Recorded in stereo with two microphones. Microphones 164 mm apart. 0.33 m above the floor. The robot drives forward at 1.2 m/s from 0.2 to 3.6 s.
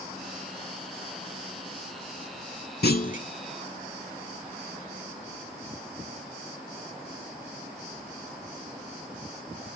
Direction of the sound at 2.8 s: 80° left.